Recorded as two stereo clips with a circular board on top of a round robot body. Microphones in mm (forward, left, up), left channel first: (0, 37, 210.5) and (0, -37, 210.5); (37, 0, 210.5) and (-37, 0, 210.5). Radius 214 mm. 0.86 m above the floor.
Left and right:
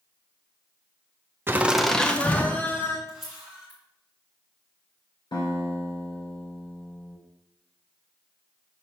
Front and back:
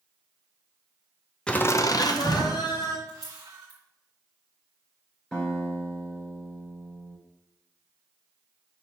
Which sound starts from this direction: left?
A guitar, at 5.3 s.